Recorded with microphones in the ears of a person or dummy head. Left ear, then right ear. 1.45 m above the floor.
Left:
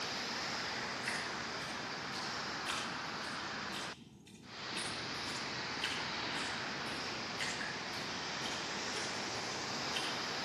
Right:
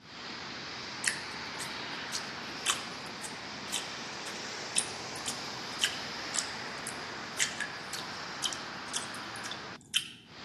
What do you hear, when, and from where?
1.0 s dripping: 70° right (ahead or behind), 1.0 m